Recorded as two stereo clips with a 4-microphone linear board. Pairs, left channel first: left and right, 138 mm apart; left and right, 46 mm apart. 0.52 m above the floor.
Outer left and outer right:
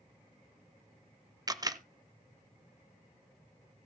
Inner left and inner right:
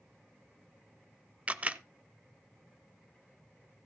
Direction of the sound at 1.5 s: 30° right (ahead or behind).